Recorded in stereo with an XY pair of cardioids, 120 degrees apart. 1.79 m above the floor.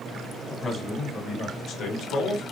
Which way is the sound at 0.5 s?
15° left.